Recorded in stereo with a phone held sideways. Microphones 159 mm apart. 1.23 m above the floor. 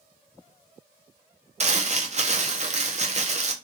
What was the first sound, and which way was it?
Crumpling, 45° right (ahead or behind).